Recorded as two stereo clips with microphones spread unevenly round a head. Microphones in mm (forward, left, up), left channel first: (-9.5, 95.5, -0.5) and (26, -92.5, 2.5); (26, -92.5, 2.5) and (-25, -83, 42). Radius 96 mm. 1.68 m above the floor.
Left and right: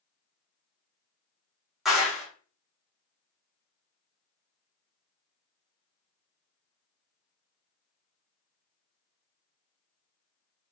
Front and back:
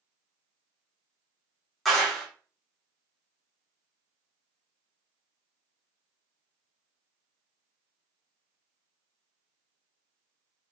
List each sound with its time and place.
1.9 s a clap: 165° right, 0.9 m